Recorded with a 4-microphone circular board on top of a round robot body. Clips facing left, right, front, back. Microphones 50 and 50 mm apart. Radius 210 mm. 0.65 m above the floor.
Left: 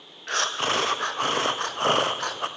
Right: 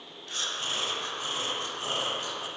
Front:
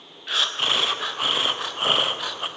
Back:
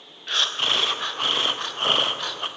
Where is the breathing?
85° left, 0.6 m.